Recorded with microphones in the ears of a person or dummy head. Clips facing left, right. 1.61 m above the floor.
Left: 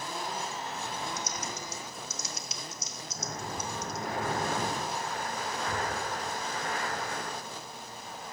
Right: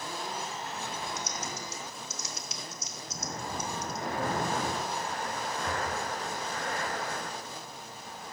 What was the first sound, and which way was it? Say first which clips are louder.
Typing on a keyboard: even; 55° left (ahead or behind).